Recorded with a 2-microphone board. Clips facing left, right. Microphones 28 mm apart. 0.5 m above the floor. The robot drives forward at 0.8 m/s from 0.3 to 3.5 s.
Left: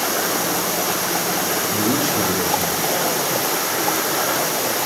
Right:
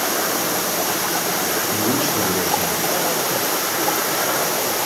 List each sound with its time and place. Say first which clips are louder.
1.7 s a man speaking: left 1 dB; 20° right (ahead or behind), 9 m